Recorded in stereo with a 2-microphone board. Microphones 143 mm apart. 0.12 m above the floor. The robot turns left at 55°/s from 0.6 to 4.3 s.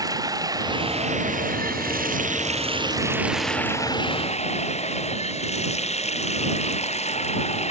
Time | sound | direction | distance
0.0 | running water | 25° right | ?